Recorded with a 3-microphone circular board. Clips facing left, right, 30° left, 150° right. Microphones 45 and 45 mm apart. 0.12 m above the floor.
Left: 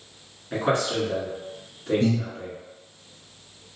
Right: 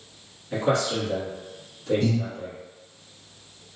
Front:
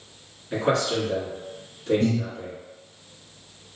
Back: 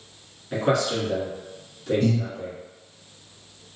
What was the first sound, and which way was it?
A man speaking, 115° left.